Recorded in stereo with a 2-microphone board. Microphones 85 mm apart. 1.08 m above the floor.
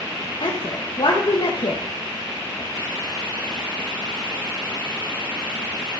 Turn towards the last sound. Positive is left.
turn(degrees=70)  # may be behind; listen again after turning